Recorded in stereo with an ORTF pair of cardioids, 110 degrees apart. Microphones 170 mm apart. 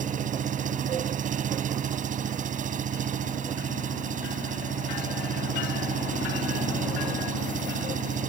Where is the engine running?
50° right.